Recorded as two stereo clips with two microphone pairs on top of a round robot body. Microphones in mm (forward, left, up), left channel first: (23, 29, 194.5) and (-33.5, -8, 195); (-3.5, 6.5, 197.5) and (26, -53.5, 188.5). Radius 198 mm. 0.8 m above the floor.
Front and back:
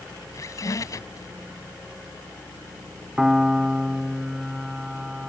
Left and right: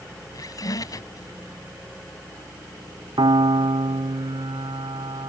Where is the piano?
65° right.